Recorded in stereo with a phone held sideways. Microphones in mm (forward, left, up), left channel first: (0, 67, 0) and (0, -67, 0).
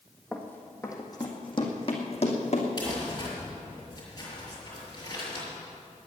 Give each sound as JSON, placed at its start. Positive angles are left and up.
{"t": 0.3, "sound": "running footsteps", "side_deg": 10, "distance_m": 1.8}
{"t": 2.8, "sound": "crumpling", "side_deg": 30, "distance_m": 5.5}